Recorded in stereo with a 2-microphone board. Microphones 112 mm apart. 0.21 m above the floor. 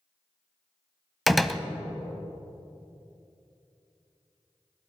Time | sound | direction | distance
1.3 | a door slam | centre (ahead or behind) | 0.7 m